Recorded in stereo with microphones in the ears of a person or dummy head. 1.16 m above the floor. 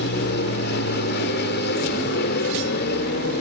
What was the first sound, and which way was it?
An aircraft, 50° left (ahead or behind).